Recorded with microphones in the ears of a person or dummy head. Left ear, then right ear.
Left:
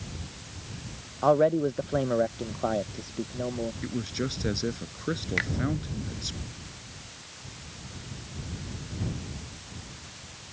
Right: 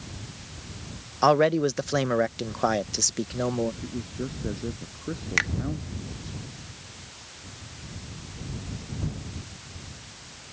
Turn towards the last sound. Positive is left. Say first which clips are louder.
# right 6 dB
turn(degrees=-30)  # may be behind; listen again after turning